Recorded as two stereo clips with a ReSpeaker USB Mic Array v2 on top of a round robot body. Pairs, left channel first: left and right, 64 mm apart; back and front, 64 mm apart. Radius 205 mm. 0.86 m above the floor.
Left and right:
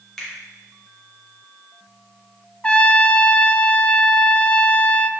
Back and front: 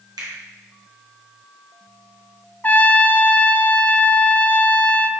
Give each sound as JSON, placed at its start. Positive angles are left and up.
{"t": 0.2, "sound": "a finger snap", "azimuth_deg": 5, "distance_m": 2.5}
{"t": 2.6, "sound": "a trumpet", "azimuth_deg": 145, "distance_m": 0.8}